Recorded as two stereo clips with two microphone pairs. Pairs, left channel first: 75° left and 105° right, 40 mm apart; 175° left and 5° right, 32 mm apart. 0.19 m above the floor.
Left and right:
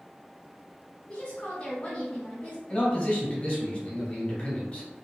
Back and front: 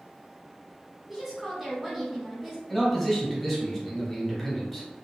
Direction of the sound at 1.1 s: 65° left.